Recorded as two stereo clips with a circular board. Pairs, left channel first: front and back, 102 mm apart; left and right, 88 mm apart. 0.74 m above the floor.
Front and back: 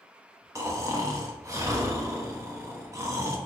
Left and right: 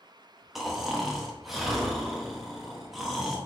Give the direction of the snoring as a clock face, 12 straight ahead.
6 o'clock.